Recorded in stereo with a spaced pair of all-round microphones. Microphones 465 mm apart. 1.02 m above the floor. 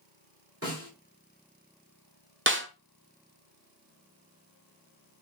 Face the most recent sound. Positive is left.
turn(degrees=-25)  # may be behind; listen again after turning